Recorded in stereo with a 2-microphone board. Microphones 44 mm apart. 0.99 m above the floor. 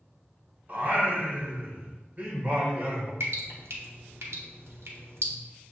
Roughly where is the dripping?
Right.